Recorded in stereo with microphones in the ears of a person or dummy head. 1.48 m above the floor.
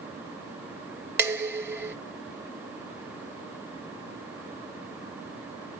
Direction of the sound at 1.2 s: 10° right (ahead or behind).